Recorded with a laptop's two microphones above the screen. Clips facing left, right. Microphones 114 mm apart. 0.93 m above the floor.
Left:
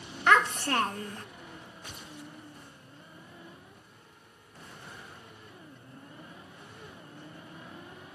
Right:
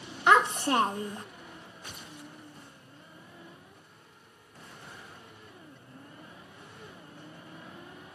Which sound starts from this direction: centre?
A child speaking, at 0.3 s.